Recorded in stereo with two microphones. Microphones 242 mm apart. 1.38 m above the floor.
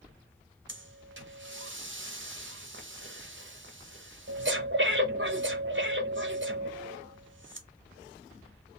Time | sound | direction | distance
0.7 | breathing | 50° right (ahead or behind) | 0.7 m